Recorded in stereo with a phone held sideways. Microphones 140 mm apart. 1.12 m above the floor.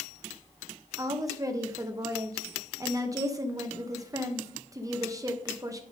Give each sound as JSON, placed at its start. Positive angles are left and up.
{"t": 1.0, "sound": "a woman speaking", "side_deg": -25, "distance_m": 1.0}